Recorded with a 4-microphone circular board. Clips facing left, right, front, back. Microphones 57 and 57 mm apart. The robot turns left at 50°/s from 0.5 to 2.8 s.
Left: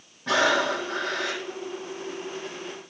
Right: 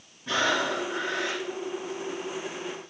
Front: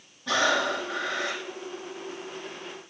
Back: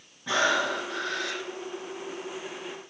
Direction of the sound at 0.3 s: 105° left.